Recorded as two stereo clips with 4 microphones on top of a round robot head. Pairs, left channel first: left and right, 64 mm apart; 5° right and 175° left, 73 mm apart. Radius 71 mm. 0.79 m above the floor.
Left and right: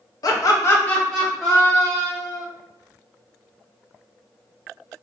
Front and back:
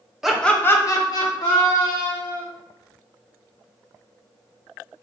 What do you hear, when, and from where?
0.2 s laughter: 90° left, 1.1 m; by 2.4 s 15° right, 3 m